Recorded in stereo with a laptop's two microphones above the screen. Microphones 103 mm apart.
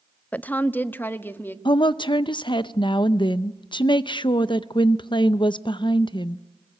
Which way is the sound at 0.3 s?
15° left (ahead or behind).